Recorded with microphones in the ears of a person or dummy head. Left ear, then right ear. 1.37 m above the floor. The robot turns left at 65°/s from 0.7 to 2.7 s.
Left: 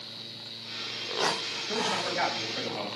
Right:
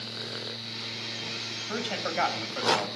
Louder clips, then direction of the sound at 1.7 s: Left 3 dB; 45° right.